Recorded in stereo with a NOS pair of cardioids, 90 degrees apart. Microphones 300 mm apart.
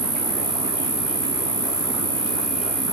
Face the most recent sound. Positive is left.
turn(degrees=-15)